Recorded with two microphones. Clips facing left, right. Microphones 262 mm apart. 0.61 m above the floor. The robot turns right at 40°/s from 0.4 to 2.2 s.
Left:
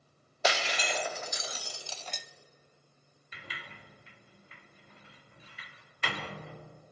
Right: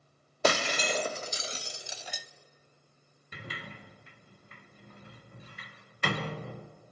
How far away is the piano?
No piano in this recording.